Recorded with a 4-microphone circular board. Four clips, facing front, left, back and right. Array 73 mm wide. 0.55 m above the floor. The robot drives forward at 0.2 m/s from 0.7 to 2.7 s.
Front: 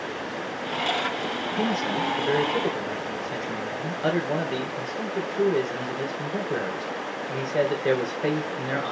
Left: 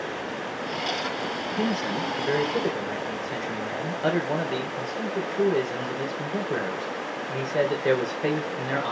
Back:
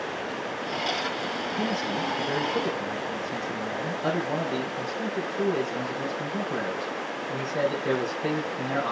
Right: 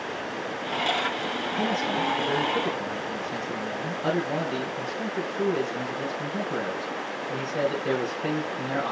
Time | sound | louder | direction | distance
1.6 | a man speaking | right 1 dB, front 4 dB | 50° left | 2 m